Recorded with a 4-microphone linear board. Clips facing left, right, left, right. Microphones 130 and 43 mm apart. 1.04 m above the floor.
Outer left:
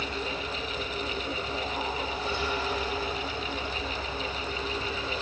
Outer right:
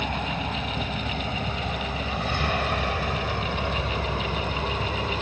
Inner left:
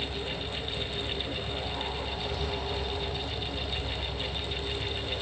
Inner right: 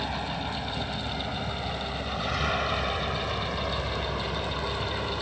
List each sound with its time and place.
0.0 s a vehicle: 65° right (ahead or behind)